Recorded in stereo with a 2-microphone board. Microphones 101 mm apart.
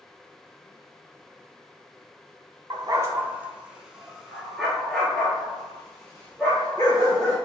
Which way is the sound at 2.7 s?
50° right (ahead or behind).